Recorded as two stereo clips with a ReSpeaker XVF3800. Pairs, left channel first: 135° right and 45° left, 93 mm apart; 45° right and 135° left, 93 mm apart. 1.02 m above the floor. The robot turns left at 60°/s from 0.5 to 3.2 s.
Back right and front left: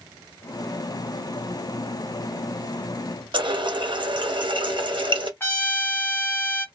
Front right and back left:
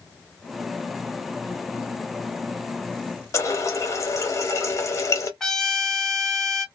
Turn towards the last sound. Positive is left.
turn(degrees=-125)